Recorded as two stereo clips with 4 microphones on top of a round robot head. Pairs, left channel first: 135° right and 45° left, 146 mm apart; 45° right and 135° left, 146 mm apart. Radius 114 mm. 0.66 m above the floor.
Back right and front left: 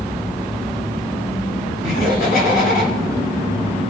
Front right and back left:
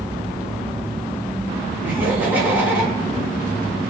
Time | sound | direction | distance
1.8 | laughter | 150° right | 6 m